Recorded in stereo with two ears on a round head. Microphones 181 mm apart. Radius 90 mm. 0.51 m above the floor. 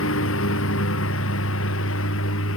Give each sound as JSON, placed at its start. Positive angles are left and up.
{"t": 0.0, "sound": "a lawn mower", "side_deg": 70}